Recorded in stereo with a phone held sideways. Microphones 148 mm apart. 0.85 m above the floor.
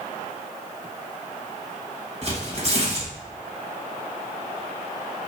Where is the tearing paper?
45° right (ahead or behind), 1.3 m.